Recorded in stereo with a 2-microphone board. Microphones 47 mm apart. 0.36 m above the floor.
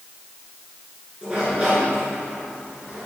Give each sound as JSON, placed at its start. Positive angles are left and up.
{"t": 1.2, "sound": "a sliding door", "side_deg": -25, "distance_m": 3.0}